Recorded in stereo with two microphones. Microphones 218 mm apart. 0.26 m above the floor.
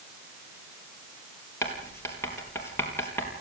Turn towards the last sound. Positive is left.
turn(degrees=10)  # may be behind; listen again after turning